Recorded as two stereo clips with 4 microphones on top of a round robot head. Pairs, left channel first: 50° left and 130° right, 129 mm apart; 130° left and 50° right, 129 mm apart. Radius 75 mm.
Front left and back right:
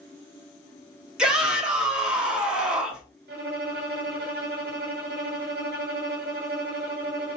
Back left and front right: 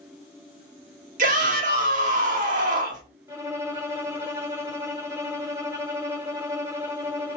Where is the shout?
45° right, 2.0 m.